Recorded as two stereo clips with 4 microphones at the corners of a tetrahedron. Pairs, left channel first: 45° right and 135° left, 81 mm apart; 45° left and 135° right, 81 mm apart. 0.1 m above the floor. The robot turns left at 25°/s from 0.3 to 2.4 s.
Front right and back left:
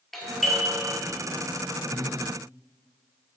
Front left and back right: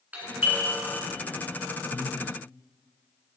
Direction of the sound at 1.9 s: 15° left.